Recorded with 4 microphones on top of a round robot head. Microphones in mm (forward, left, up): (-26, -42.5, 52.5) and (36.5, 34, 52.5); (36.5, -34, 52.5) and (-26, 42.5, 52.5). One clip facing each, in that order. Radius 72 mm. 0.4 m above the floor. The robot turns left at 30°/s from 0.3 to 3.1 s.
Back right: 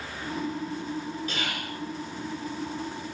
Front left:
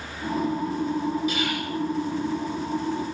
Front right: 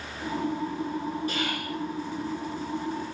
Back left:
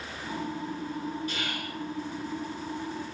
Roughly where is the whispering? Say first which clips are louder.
Front left 6 dB, front right 4 dB; ahead right.